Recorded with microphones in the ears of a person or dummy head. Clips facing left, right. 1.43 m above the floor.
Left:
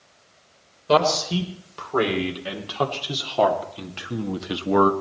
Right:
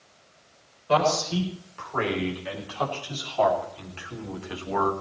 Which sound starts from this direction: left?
A man speaking, at 0.9 s.